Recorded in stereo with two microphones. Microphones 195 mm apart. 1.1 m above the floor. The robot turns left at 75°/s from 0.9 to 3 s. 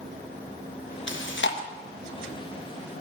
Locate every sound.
1.1 s chewing: 75° left (ahead or behind), 0.9 m; by 1.6 s 65° left (ahead or behind), 0.9 m